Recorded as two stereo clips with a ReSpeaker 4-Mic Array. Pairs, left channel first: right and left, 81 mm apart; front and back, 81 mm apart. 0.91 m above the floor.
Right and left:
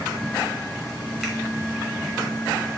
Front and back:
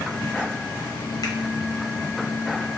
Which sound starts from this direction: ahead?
A finger snap, at 1.2 s.